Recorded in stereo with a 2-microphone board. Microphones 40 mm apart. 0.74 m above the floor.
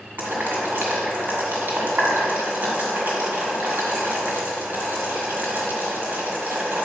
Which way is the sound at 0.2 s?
60° right (ahead or behind).